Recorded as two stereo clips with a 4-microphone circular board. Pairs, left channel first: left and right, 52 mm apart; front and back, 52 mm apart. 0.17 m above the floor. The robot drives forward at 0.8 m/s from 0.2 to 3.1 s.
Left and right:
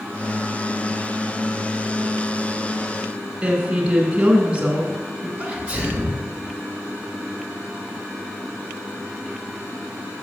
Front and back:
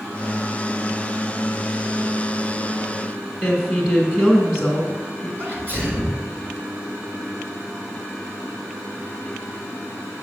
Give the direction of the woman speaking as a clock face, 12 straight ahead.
4 o'clock.